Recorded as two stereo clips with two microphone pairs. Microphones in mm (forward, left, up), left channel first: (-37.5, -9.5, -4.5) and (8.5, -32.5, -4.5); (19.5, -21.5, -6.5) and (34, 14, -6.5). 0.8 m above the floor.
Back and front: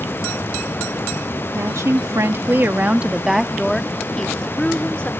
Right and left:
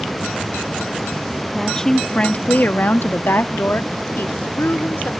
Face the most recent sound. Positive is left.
turn(degrees=-140)